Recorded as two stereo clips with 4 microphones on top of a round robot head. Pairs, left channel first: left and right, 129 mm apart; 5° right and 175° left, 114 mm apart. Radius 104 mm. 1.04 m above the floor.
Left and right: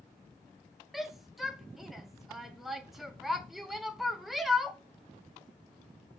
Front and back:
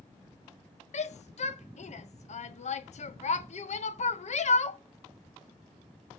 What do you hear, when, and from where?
0.9 s a shout: straight ahead, 1.0 m